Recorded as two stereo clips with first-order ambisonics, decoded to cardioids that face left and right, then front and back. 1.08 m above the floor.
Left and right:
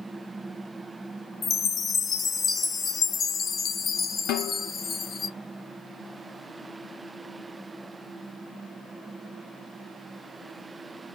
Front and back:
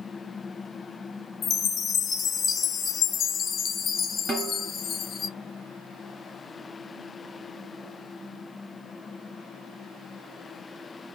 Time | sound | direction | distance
1.4 | a chime | 45° left | 0.5 m
4.3 | a snare drum | 110° left | 1.3 m